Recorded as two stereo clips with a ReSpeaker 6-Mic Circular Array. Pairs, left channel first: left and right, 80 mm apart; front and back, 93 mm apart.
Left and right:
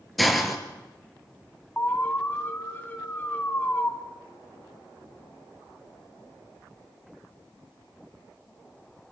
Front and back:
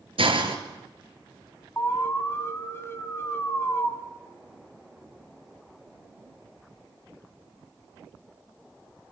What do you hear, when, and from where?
0.2 s a hiss: straight behind, 3 m
1.8 s an alarm: 45° left, 2.5 m